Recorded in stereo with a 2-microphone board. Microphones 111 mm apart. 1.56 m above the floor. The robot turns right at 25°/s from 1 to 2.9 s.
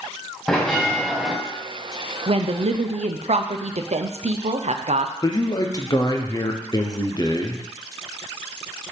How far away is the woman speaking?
About 0.6 m.